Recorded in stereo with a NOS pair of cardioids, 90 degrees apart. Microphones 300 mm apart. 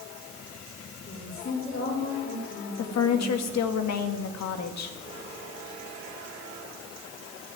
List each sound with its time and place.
1.1 s a woman speaking: 45° left, 4 m
2.8 s a woman speaking: 60° left, 2.0 m